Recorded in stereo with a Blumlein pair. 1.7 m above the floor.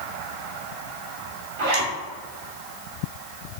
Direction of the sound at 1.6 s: 60° right.